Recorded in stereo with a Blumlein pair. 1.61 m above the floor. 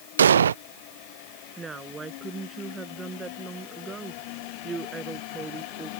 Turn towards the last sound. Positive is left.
turn(degrees=-15)